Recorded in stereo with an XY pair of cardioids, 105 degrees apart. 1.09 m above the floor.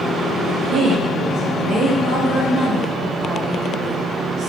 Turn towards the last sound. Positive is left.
turn(degrees=-70)